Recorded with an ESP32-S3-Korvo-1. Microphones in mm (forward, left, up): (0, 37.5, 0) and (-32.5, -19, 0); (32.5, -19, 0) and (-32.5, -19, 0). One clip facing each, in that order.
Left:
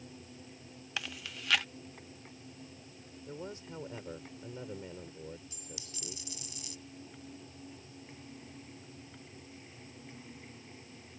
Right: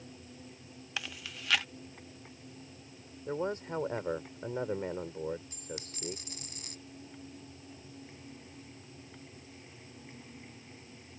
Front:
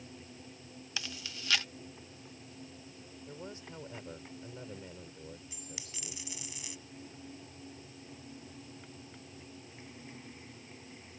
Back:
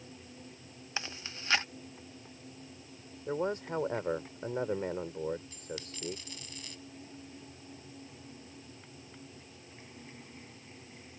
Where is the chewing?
155° left.